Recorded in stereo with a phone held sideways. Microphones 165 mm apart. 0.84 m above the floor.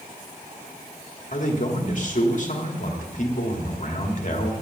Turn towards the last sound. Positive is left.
turn(degrees=55)  # may be behind; listen again after turning